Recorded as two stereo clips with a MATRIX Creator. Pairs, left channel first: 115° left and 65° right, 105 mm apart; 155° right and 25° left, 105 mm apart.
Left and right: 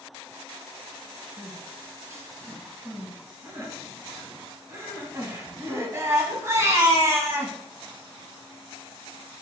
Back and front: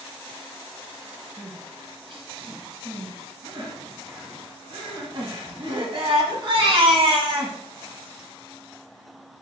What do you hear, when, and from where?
1.4 s crying: 5° right, 0.9 m